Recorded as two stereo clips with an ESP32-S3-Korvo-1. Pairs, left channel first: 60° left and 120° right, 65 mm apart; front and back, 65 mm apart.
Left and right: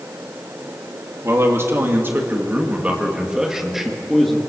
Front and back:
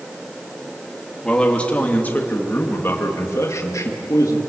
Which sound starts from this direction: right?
A man speaking, at 1.2 s.